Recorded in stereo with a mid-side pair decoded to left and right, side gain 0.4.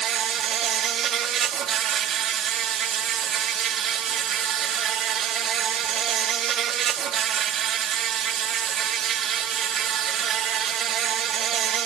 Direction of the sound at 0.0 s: 70° right.